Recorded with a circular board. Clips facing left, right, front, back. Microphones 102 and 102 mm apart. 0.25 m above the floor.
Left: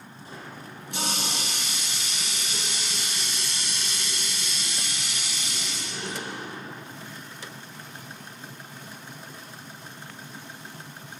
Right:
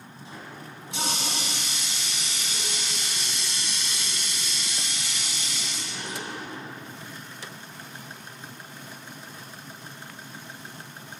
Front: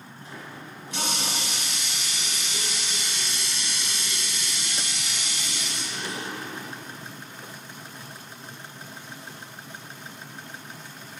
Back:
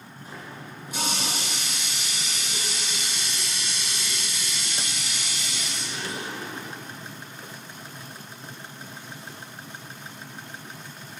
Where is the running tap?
100° left, 2.5 m.